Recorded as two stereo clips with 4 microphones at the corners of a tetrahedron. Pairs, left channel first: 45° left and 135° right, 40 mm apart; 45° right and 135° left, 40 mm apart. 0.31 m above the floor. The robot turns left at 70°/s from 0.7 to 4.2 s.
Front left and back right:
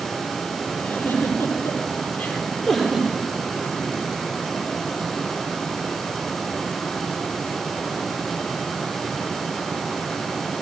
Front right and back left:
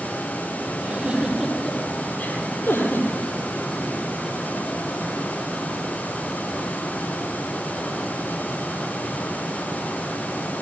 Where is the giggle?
90° left, 9 m; by 3.1 s 75° right, 9 m.